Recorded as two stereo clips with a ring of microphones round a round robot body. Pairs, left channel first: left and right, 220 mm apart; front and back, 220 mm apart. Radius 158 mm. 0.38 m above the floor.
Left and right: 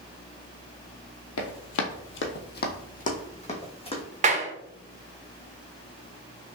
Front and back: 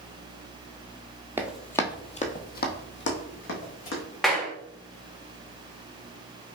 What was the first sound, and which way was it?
Running footsteps, 100° left.